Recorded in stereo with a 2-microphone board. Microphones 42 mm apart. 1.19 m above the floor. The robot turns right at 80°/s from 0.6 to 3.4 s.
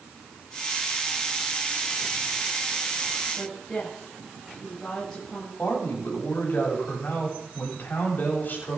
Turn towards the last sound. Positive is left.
turn(degrees=50)  # may be behind; listen again after turning